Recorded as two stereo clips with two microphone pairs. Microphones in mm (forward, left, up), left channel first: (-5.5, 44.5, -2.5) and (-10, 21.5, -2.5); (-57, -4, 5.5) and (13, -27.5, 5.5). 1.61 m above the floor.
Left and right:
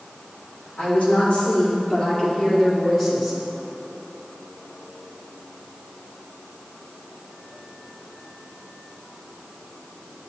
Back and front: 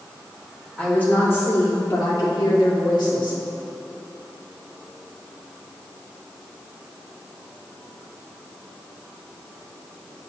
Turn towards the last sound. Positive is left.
turn(degrees=170)